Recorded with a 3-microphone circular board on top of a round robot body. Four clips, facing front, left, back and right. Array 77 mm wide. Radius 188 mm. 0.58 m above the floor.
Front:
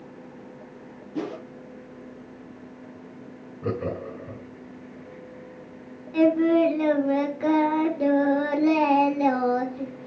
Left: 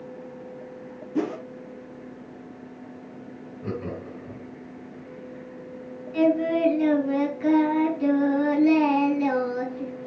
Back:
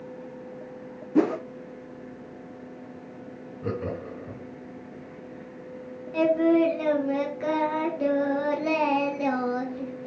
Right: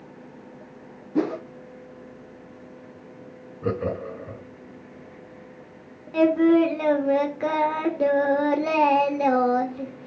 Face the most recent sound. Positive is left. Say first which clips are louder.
# right 4 dB, front 2 dB
turn(degrees=-95)